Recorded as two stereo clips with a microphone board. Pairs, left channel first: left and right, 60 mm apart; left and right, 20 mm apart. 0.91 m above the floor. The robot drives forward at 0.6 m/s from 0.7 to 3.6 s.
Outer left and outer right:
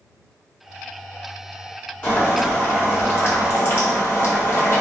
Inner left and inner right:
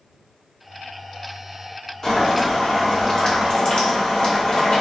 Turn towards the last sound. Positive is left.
turn(degrees=40)  # may be behind; listen again after turning